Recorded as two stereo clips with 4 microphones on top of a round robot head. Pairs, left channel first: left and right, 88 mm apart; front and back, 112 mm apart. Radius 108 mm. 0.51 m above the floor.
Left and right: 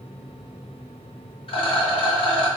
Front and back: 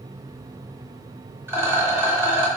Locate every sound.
1.5 s a rattle: 110° left, 0.9 m